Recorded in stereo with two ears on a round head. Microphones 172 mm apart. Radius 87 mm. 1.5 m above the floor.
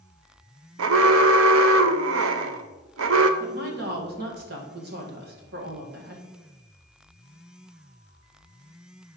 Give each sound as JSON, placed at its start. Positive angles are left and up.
{"t": 0.8, "sound": "an alarm", "side_deg": -75, "distance_m": 0.6}
{"t": 3.4, "sound": "a woman speaking", "side_deg": -55, "distance_m": 1.7}